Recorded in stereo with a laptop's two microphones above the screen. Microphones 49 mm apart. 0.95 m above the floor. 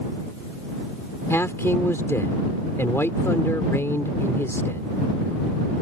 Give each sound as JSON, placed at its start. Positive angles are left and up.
{"t": 1.3, "sound": "a man speaking", "side_deg": 70}